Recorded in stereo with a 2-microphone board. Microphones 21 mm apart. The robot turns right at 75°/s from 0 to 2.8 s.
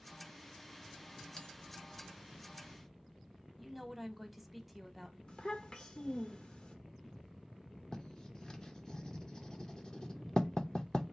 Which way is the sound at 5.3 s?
35° left (ahead or behind).